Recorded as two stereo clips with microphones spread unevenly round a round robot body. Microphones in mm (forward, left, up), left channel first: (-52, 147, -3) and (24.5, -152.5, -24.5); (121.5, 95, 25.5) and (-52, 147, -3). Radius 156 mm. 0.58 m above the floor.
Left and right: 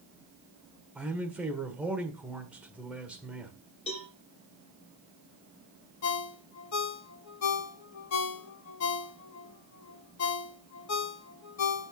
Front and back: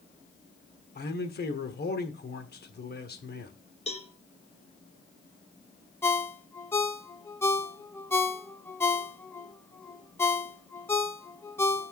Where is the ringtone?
60° left, 0.8 m.